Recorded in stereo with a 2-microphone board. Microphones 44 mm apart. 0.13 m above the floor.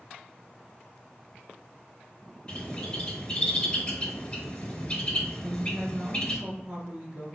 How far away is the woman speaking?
About 1.2 m.